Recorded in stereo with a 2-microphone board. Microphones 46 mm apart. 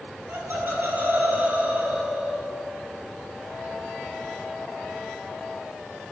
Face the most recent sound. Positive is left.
turn(degrees=-5)  # may be behind; listen again after turning